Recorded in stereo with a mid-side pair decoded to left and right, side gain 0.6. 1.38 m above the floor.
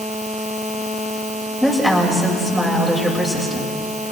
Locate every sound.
1.6 s a woman speaking: 5° left, 7.5 m